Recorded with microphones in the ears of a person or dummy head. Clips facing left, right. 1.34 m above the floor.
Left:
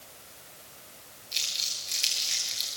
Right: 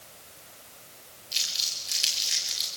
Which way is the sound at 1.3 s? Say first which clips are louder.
Even; 10° right (ahead or behind).